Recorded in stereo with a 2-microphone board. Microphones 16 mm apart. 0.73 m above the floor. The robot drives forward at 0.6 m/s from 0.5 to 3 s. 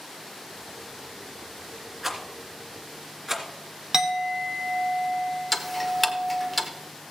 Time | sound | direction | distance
2.0 | a rattle | 15° right (ahead or behind) | 3 m
3.9 | a clink | 30° right (ahead or behind) | 1.0 m
5.5 | ticking | centre (ahead or behind) | 1.0 m